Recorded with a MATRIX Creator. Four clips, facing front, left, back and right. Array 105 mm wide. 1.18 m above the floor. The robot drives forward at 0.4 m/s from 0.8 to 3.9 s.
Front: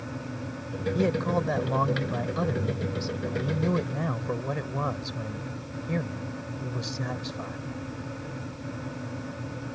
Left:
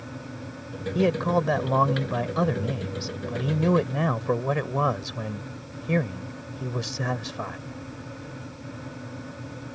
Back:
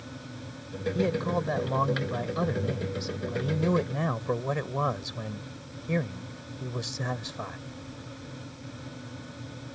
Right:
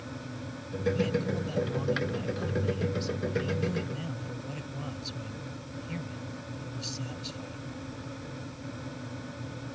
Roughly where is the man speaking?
Left.